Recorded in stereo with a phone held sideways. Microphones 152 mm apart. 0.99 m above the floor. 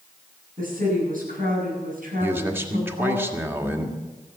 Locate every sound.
0.6 s a woman speaking: 65° right (ahead or behind), 9 m
2.2 s a man speaking: 15° right (ahead or behind), 1.7 m